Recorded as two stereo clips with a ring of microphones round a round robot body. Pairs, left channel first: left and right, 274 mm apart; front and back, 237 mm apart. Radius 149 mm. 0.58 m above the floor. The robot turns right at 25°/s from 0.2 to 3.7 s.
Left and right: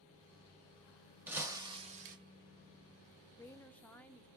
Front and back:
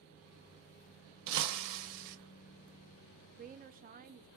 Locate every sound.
1.3 s breaking glass: 175° right, 0.6 m; by 2.2 s 150° right, 0.6 m
3.4 s a woman speaking: 160° left, 0.6 m; by 4.3 s 170° left, 0.6 m